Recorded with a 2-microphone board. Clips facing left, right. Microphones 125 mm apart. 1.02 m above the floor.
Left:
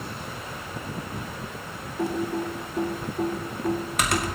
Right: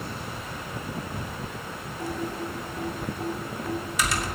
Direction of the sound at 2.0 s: 60° left (ahead or behind).